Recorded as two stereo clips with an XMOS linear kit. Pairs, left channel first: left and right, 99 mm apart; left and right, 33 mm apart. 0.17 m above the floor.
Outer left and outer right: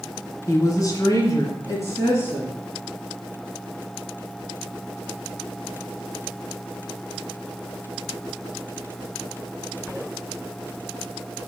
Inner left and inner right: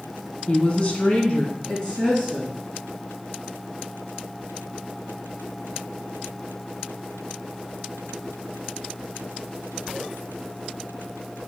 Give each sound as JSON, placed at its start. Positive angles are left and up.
{"t": 0.5, "sound": "a woman speaking", "side_deg": 35, "distance_m": 1.2}